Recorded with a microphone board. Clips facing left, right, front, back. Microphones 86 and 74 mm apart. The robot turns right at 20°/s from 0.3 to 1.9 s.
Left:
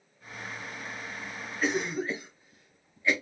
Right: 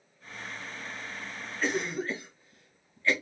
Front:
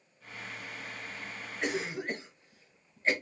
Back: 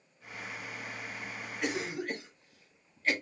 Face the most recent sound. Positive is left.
turn(degrees=25)